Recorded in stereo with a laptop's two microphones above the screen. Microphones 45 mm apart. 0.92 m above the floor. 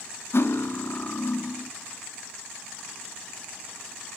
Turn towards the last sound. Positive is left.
turn(degrees=60)  # may be behind; listen again after turning